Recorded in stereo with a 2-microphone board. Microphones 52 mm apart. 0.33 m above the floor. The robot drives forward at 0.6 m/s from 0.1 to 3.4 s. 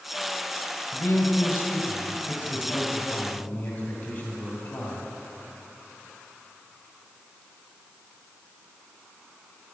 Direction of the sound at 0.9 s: 50° left (ahead or behind).